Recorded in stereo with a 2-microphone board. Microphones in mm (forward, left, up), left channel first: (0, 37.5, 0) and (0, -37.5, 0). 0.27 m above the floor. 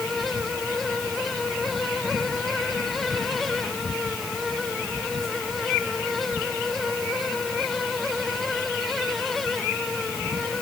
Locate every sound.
Only background noise.